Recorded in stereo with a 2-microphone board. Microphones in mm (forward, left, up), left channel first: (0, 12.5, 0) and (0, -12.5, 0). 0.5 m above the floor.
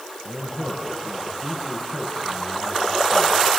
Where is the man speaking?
30° right (ahead or behind), 6 m.